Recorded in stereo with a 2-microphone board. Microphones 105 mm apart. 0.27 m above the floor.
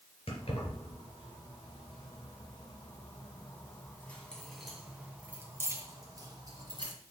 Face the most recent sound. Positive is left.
turn(degrees=-45)  # may be behind; listen again after turning